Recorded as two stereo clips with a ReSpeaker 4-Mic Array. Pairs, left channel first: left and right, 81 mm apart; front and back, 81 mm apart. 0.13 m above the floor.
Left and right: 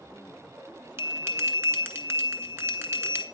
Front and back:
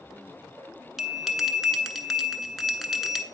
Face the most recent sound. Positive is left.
turn(degrees=-95)